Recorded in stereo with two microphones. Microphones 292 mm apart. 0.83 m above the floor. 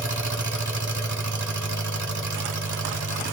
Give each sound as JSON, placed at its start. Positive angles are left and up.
{"t": 0.0, "sound": "an engine running", "side_deg": -80, "distance_m": 1.4}